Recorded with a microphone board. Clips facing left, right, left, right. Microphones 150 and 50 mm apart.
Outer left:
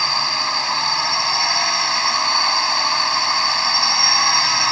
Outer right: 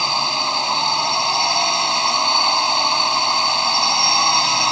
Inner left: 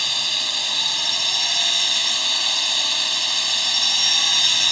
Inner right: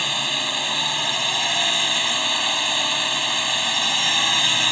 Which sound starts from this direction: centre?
A drone, at 0.0 s.